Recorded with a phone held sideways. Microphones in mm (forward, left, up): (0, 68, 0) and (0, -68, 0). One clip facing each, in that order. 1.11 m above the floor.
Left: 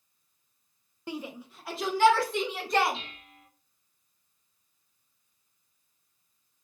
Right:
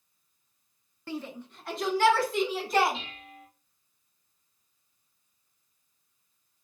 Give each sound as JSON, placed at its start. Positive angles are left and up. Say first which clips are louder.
{"t": 1.1, "sound": "a shout", "louder": "right 1 dB", "side_deg": 15, "distance_m": 0.6}
{"t": 2.9, "sound": "dishes clattering", "louder": "right 2 dB", "side_deg": 0, "distance_m": 1.3}